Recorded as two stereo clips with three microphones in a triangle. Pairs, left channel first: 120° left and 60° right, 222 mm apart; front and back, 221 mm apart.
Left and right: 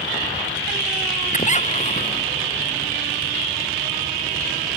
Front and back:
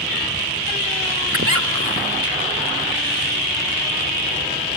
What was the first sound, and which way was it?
A squeak, straight behind.